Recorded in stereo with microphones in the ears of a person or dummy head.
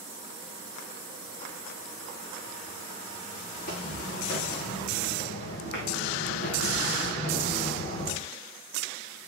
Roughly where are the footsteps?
Left.